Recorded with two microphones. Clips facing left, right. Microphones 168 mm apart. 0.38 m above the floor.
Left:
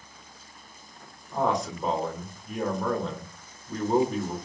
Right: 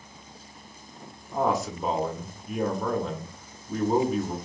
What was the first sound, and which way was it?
A man speaking, 5° right (ahead or behind).